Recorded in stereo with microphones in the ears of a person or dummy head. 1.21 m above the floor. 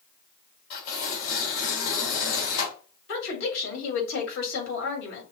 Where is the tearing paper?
65° left (ahead or behind), 3 m.